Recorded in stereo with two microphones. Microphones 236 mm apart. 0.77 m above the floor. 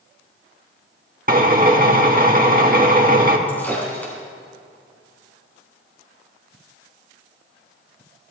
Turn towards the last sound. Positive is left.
turn(degrees=5)  # may be behind; listen again after turning